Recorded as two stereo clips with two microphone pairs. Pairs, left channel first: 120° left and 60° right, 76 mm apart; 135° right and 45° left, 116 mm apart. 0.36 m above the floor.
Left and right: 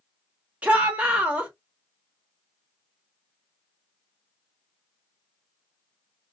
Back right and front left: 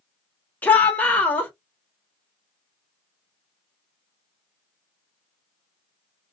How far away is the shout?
About 0.9 m.